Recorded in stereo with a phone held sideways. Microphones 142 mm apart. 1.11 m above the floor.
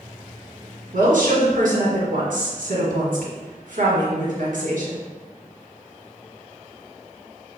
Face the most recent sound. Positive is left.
turn(degrees=-70)  # may be behind; listen again after turning